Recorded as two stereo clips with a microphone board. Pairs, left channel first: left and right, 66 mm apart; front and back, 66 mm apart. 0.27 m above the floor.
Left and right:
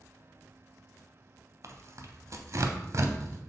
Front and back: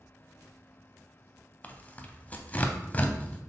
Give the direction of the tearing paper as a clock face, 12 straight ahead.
2 o'clock.